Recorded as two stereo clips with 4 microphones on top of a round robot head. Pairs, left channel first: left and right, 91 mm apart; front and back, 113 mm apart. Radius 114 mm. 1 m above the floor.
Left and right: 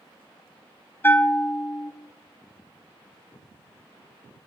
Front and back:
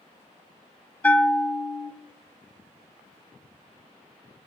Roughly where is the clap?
No clap in this recording.